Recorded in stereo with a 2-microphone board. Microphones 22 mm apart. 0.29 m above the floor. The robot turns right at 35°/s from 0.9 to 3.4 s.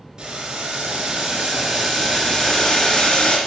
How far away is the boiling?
About 3 m.